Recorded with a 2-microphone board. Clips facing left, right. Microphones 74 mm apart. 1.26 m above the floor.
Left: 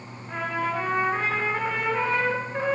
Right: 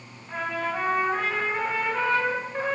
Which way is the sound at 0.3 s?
5° left (ahead or behind).